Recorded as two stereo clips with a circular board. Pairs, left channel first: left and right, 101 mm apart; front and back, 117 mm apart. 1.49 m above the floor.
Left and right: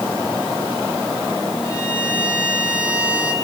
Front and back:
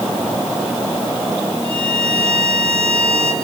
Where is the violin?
155° left, 6 m.